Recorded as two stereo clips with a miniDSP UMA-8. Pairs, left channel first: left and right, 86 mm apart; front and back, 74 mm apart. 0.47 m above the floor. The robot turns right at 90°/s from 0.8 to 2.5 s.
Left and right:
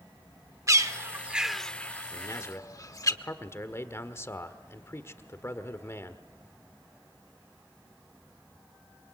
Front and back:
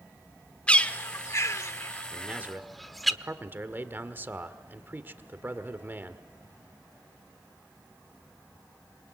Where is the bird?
65° right, 0.9 m; by 3.1 s 90° left, 0.9 m.